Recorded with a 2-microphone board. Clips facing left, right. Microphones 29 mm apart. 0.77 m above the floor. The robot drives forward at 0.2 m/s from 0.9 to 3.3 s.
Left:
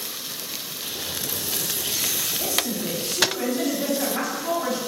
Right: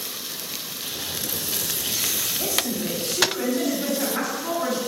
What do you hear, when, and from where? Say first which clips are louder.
2.4 s a woman speaking: right 1 dB; centre (ahead or behind), 1.4 m